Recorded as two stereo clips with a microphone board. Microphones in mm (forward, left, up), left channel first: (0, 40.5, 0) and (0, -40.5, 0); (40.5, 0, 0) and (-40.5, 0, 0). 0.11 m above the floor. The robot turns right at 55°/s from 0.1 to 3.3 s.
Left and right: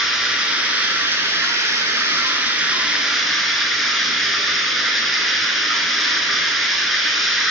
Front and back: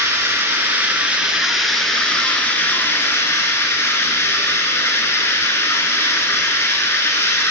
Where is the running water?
175° right, 0.9 m; by 7.5 s straight ahead, 0.9 m.